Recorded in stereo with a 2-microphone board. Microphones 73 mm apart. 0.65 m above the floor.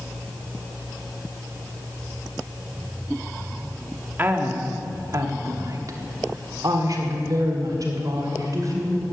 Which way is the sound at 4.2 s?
30° right (ahead or behind).